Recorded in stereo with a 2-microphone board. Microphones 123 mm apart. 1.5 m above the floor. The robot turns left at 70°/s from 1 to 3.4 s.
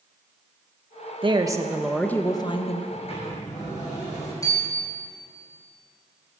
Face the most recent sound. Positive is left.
turn(degrees=25)  # may be behind; listen again after turning